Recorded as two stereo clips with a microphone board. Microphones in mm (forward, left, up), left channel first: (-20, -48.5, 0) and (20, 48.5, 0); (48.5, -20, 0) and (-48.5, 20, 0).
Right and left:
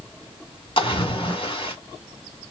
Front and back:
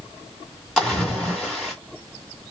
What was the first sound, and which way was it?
A splash, 110° right.